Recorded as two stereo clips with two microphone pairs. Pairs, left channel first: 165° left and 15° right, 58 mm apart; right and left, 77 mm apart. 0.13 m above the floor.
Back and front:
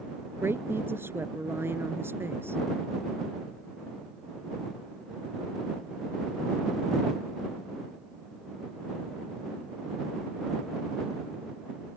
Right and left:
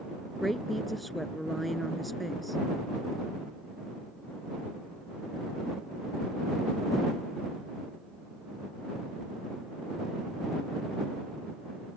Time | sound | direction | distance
0.4 | a woman speaking | 5° right | ?